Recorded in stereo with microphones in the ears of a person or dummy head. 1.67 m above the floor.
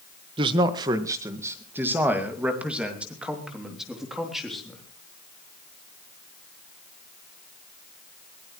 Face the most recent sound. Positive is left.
turn(degrees=5)  # may be behind; listen again after turning